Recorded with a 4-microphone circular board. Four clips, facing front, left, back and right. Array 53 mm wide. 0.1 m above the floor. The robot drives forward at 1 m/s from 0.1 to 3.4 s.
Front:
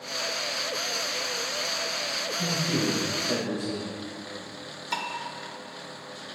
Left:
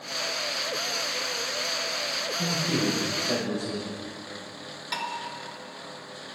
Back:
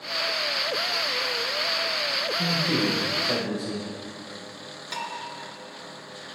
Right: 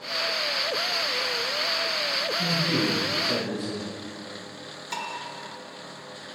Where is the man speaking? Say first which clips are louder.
Even, back 2 dB; 155° left, 3.5 m; by 3.9 s 160° left, 4.5 m.